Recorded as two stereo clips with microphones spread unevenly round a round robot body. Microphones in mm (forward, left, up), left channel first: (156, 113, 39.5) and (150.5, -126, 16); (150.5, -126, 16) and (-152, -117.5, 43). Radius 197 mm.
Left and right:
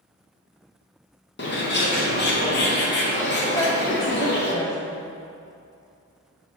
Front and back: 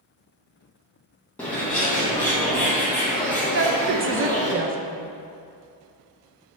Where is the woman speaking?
165° left, 0.6 m.